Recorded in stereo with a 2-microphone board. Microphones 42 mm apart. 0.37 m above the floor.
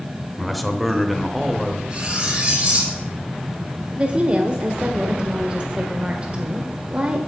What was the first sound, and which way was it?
A man speaking, centre (ahead or behind).